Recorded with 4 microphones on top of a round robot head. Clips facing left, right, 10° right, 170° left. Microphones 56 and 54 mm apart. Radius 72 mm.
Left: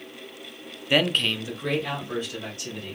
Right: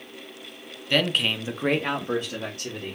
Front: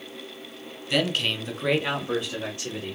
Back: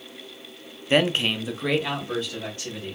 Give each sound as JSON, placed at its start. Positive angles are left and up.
{"t": 0.9, "sound": "a man speaking", "azimuth_deg": 155, "distance_m": 0.6}